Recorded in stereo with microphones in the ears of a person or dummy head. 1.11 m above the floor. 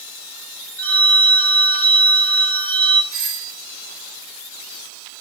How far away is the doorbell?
About 1.9 m.